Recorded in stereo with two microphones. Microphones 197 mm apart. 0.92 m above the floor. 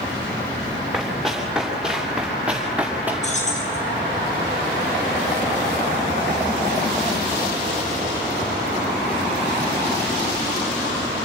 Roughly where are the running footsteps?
Centre.